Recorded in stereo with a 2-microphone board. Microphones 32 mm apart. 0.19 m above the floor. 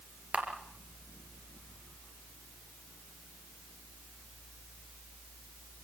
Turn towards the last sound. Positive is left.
turn(degrees=-35)  # may be behind; listen again after turning